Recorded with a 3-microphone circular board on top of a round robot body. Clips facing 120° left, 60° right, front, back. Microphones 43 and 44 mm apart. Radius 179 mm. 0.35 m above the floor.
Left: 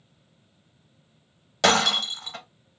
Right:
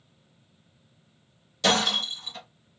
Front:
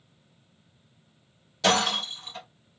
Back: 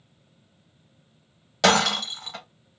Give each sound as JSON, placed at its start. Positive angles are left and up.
{"t": 1.6, "sound": "breaking glass", "azimuth_deg": 155, "distance_m": 0.7}